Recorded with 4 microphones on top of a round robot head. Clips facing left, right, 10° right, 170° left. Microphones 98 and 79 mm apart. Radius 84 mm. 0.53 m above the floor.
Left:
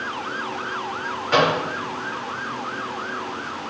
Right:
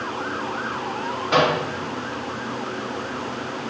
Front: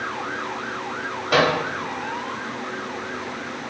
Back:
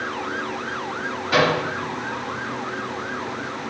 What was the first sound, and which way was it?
A microwave, 10° right.